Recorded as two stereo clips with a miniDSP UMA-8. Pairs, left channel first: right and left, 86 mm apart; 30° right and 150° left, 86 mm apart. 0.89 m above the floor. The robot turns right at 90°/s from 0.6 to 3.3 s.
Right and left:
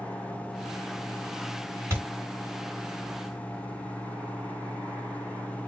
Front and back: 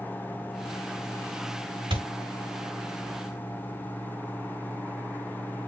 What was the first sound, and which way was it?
A thud, 150° left.